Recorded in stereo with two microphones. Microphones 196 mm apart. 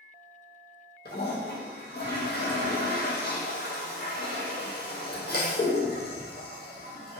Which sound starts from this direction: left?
A toilet flushing, at 1.1 s.